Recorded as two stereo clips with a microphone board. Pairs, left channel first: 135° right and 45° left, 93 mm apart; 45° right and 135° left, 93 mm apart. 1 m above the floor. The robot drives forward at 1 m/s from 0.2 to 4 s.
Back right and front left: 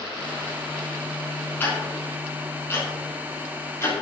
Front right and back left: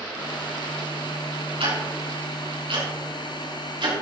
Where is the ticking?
155° left, 6 m; by 3.9 s 165° left, 8 m.